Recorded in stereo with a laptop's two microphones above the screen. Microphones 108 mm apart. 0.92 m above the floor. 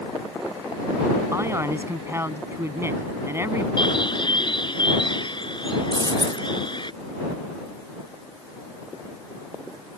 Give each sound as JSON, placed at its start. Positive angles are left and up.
{"t": 1.3, "sound": "a man speaking", "side_deg": -25}
{"t": 3.8, "sound": "a bird", "side_deg": 45}
{"t": 5.9, "sound": "a dropped coin", "side_deg": -40}